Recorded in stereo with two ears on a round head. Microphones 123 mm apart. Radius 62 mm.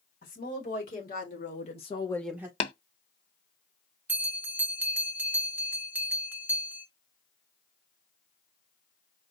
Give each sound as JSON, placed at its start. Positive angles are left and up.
{"t": 0.2, "sound": "a woman speaking", "side_deg": 75, "distance_m": 3.5}
{"t": 2.6, "sound": "tapping", "side_deg": 40, "distance_m": 0.7}
{"t": 4.1, "sound": "a bell", "side_deg": -15, "distance_m": 1.0}